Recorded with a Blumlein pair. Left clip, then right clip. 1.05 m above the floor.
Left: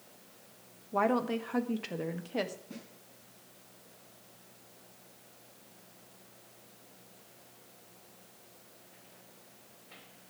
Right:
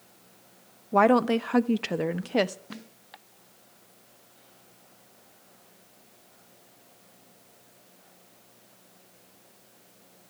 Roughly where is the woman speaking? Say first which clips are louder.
Right 9 dB; ahead right.